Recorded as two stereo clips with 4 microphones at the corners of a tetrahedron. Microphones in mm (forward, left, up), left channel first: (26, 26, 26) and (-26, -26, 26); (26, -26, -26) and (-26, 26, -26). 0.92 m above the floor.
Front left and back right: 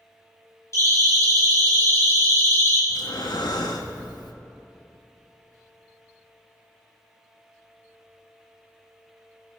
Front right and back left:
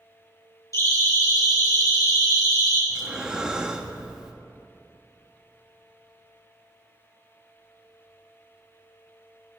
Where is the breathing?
55° left, 1.2 m.